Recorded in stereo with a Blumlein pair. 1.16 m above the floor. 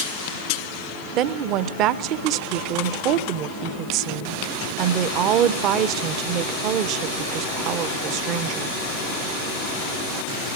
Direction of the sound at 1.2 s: 40° right.